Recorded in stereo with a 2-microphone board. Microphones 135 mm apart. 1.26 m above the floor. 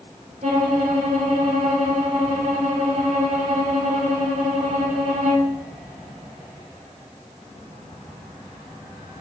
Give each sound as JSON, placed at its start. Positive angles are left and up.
{"t": 0.4, "sound": "a violin", "side_deg": -60, "distance_m": 2.0}